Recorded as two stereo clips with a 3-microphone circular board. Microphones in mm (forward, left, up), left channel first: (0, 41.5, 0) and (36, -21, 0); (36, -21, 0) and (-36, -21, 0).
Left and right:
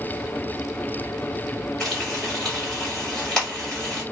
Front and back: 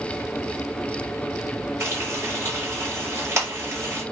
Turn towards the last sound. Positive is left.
turn(degrees=-165)